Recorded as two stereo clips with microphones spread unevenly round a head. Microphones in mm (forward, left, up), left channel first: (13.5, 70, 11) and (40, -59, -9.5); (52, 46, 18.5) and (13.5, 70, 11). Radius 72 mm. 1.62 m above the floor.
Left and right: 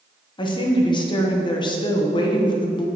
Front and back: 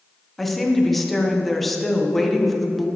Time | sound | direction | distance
0.4 | a woman speaking | 50° left | 1.1 m